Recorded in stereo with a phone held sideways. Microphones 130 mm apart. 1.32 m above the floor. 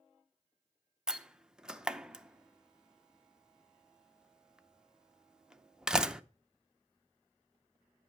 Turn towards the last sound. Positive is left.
turn(degrees=-5)  # may be behind; listen again after turning